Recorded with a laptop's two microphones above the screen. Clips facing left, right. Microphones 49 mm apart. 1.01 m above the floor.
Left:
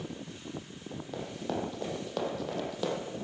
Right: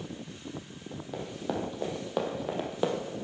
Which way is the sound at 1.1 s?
5° right (ahead or behind).